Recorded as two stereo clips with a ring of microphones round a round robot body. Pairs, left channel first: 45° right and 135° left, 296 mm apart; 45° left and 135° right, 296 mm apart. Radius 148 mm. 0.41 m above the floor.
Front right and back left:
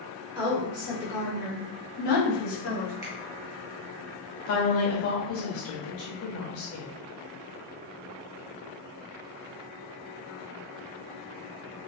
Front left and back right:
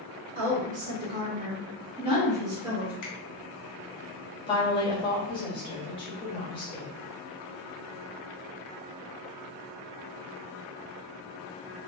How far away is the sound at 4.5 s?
About 1.3 m.